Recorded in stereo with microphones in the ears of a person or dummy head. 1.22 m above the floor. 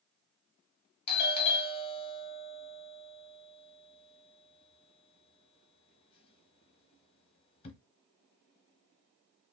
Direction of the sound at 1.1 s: 30° left (ahead or behind).